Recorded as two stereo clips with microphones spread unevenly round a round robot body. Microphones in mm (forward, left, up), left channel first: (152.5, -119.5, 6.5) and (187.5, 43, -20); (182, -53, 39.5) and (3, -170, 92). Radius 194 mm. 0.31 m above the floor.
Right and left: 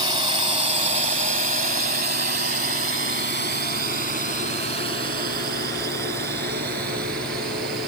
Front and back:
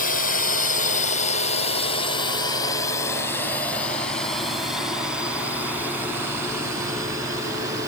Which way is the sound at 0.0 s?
30° left.